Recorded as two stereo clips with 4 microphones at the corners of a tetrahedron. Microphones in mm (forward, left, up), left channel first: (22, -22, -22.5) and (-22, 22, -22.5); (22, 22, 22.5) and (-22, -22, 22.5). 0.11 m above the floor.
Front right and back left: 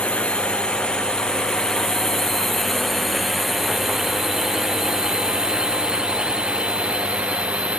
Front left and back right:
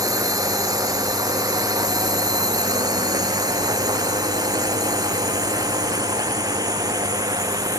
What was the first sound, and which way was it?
A drone, 115° right.